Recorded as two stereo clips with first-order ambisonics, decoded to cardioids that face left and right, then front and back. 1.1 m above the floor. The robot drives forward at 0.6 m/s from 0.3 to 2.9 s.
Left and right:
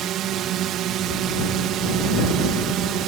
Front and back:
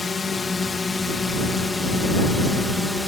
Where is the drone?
70° right; by 3.1 s 85° right.